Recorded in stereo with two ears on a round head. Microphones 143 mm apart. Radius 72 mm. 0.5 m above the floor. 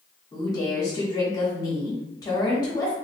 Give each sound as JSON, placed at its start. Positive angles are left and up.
{"t": 0.3, "sound": "a woman speaking", "side_deg": 25, "distance_m": 0.9}